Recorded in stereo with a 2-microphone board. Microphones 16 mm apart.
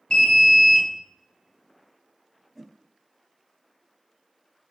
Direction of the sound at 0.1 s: 50° left (ahead or behind).